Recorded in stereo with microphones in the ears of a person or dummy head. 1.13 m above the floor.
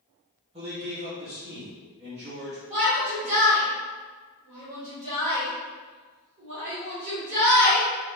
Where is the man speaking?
30° right (ahead or behind), 1.0 m.